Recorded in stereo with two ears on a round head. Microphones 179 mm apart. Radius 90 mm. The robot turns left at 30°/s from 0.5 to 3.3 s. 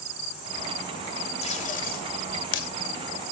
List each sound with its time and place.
1.4 s tape being pulled: 35° left (ahead or behind), 2.5 m; by 2.7 s 70° left (ahead or behind), 2.5 m